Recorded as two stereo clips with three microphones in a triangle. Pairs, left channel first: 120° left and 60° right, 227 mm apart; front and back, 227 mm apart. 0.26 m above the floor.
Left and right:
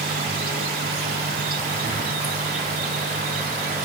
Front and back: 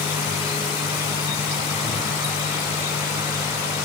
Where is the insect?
105° right, 0.9 m.